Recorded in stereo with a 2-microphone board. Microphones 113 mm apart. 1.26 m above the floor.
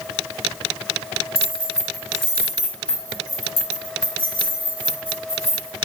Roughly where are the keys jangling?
Right.